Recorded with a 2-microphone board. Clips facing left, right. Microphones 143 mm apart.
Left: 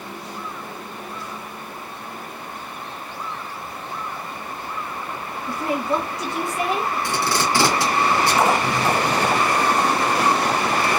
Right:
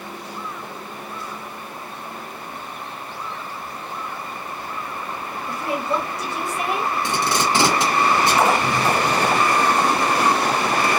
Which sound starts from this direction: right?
Tape being pulled, at 7.0 s.